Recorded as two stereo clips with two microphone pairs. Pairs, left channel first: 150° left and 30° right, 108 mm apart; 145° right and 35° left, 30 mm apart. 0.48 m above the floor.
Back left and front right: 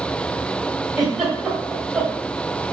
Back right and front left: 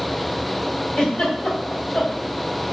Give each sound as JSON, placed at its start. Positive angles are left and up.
{"t": 1.0, "sound": "a giggle", "azimuth_deg": -115, "distance_m": 1.9}